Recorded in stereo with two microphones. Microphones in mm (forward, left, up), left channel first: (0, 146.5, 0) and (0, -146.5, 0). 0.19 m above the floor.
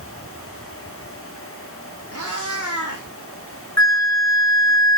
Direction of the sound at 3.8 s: 65° left (ahead or behind).